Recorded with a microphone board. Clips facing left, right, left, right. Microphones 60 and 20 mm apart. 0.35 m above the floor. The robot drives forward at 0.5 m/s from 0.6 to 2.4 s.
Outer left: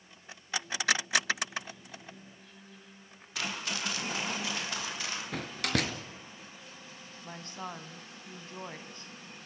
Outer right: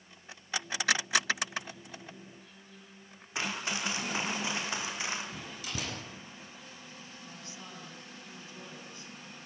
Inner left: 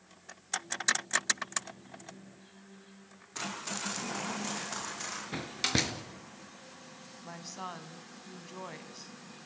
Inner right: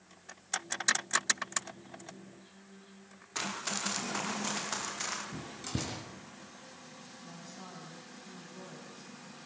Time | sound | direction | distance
3.4 | running footsteps | 25° right (ahead or behind) | 6.5 m
5.3 | a door slam | 75° left (ahead or behind) | 3.5 m
7.2 | a woman speaking | 50° left (ahead or behind) | 2.5 m